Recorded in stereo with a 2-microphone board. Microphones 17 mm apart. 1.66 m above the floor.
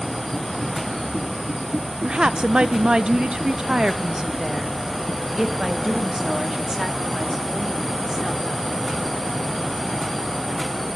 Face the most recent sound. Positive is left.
turn(degrees=-40)  # may be behind; listen again after turning